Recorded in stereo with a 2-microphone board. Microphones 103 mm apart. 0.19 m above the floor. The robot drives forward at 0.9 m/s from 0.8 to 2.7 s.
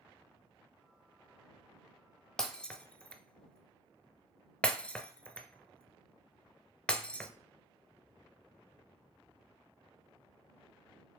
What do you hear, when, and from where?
2.4 s breaking glass: 10° left (ahead or behind), 0.7 m; by 7.3 s 15° left (ahead or behind), 0.5 m